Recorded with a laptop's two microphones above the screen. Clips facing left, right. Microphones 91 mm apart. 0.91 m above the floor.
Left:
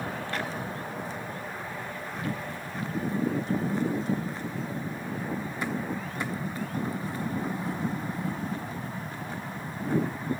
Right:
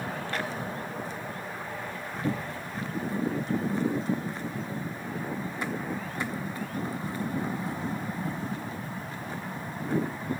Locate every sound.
2.2 s a cupboard door: 25° right (ahead or behind)